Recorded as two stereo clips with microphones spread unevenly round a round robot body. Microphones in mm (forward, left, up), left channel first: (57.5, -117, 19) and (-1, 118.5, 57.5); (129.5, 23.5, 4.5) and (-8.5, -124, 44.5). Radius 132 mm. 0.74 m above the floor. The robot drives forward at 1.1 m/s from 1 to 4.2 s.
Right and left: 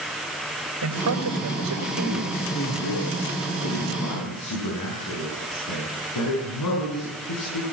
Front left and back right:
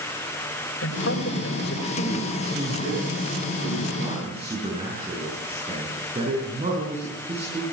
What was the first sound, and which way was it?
A man speaking, 80° left.